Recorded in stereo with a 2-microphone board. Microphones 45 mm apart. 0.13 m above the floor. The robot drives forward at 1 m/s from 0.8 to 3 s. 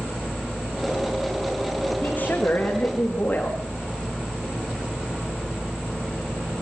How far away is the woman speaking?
About 7 m.